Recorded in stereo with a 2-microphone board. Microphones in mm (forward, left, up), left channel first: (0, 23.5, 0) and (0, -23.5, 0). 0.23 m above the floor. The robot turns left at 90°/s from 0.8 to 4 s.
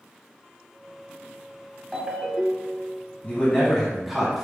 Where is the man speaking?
60° left, 1.4 m; by 4.4 s 10° right, 1.4 m.